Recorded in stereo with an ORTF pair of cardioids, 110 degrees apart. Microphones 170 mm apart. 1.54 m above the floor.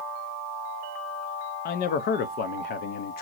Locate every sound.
1.6 s a man speaking: 65° left, 0.7 m